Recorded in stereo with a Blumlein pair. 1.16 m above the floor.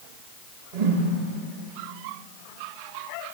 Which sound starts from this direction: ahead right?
A whoosh, at 0.7 s.